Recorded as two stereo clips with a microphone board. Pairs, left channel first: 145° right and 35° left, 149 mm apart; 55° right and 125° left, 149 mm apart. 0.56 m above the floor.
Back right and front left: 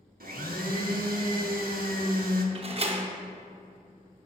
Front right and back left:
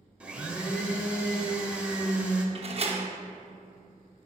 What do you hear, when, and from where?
0.2 s a blender: 45° left, 0.7 m
2.5 s a door slam: 80° left, 0.7 m